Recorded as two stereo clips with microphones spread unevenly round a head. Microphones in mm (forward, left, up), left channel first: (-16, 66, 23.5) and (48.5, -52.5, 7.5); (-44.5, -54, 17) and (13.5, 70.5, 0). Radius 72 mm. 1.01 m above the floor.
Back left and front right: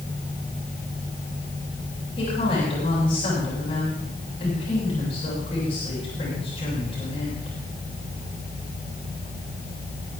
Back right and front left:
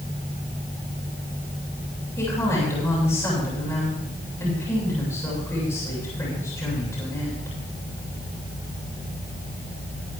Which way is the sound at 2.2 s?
175° left.